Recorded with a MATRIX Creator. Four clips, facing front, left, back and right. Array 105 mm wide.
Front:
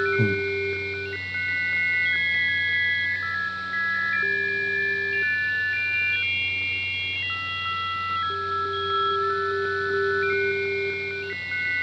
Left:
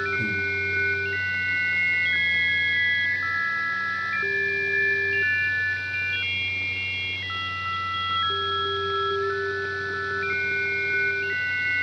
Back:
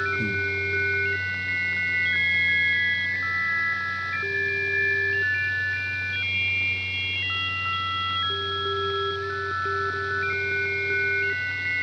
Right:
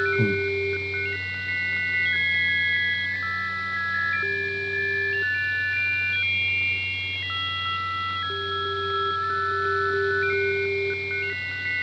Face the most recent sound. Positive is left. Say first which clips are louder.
# right 5 dB, front 4 dB
turn(degrees=-45)